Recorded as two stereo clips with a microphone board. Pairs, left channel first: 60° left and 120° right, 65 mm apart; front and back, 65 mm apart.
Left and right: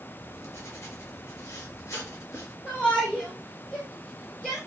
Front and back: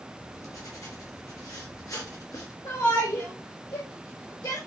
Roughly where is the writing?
Ahead.